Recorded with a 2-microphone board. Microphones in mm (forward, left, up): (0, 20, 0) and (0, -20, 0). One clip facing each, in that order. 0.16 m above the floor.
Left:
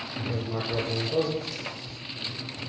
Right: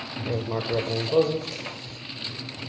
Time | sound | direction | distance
0.3 | writing | 50° right (ahead or behind) | 1.2 m